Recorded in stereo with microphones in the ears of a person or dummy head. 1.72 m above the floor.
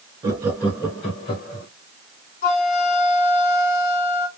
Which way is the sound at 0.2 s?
25° right (ahead or behind).